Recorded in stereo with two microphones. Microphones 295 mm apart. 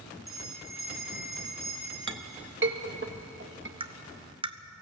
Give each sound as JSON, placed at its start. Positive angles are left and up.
{"t": 0.3, "sound": "a bell", "side_deg": 60, "distance_m": 6.5}
{"t": 2.1, "sound": "a clink", "side_deg": -40, "distance_m": 1.1}
{"t": 3.8, "sound": "tapping", "side_deg": -15, "distance_m": 0.8}